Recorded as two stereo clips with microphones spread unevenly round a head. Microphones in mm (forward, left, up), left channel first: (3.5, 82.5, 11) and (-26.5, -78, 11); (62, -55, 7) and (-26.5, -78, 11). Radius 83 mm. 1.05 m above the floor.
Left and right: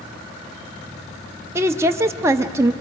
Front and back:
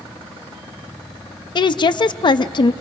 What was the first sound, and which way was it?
A woman speaking, 25° right.